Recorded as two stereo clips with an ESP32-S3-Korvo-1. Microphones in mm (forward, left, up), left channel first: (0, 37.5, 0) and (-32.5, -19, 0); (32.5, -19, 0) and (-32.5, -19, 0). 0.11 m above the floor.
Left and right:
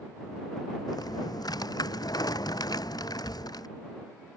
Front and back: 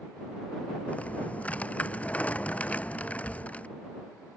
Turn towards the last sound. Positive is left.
turn(degrees=70)